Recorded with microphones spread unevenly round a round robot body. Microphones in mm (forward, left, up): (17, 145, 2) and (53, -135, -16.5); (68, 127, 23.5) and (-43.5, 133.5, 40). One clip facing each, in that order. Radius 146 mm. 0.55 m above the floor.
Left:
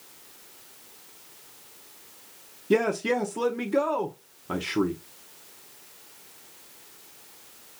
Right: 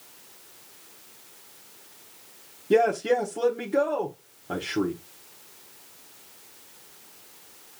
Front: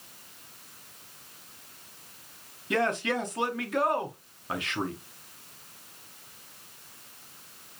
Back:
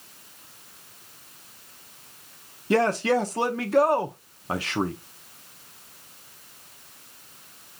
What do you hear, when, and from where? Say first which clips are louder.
2.7 s a man speaking: right 2 dB, back 6 dB; 160° left, 0.7 m